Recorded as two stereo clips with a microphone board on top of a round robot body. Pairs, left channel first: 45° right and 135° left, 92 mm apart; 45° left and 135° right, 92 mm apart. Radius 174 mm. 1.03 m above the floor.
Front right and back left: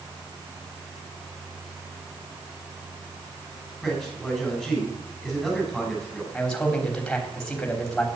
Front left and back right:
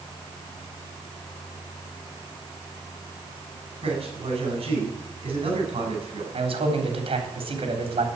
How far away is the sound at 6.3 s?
About 3.5 m.